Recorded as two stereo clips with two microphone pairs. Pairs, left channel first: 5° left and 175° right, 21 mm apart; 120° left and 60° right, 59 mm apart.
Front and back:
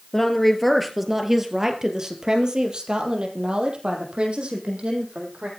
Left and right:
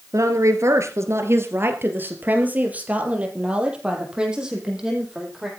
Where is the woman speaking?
70° right, 3 m; by 5.5 s 145° right, 6.5 m.